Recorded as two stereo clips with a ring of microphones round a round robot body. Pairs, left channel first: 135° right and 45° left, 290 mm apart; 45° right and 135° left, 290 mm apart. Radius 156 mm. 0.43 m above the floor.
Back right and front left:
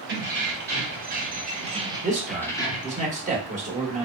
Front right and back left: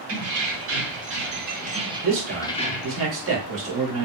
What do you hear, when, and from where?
0.1 s keys jangling: 100° left, 1.7 m; by 3.0 s 80° right, 0.8 m
2.0 s a man speaking: 105° left, 1.2 m